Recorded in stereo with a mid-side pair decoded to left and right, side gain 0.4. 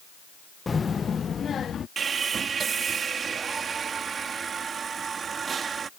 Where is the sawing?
55° right.